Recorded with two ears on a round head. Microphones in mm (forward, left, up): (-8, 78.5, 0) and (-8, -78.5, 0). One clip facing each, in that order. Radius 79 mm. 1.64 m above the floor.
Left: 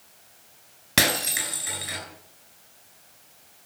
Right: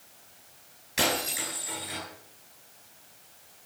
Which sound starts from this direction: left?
Breaking glass, at 1.0 s.